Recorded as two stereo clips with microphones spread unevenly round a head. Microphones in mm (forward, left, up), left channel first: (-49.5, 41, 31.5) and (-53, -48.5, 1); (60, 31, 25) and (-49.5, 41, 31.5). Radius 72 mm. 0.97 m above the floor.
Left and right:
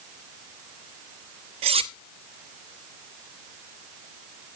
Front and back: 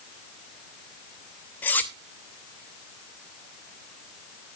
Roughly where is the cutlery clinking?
Right.